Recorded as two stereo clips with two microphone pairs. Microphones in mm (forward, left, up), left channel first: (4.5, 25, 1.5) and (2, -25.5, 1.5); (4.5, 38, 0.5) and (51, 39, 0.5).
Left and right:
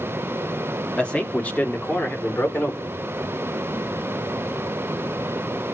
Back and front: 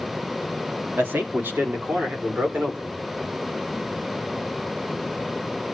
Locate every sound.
1.0 s a man speaking: 25° left, 1.6 m; by 3.0 s 40° left, 3 m